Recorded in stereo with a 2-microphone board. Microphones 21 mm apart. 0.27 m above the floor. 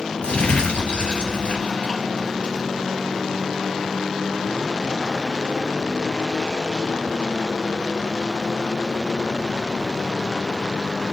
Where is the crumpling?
65° left (ahead or behind), 2.5 m.